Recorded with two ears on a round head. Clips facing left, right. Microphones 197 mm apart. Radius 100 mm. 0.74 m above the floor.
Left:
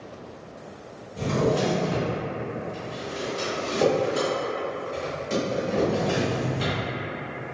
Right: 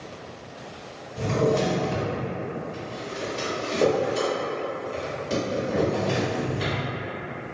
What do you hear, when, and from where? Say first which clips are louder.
1.2 s a drawer: right 1 dB; 15° right (ahead or behind), 1.2 m